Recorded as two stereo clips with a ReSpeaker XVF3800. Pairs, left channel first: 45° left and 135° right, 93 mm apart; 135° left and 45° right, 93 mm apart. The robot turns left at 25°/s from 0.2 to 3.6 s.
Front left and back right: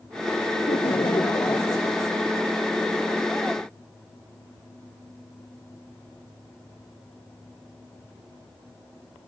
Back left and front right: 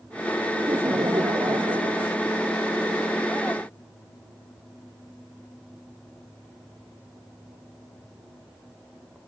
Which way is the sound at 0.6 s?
20° left.